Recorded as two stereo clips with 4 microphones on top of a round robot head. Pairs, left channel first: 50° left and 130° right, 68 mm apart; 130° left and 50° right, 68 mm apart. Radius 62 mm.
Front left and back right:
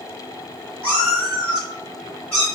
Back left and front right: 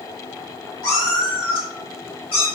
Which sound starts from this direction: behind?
A cat meowing, at 0.8 s.